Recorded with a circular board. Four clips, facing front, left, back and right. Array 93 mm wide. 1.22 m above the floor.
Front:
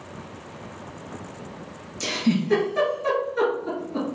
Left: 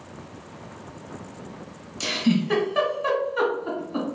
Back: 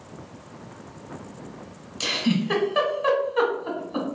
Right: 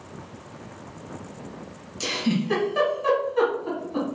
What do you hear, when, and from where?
2.0 s a giggle: 165° left, 1.3 m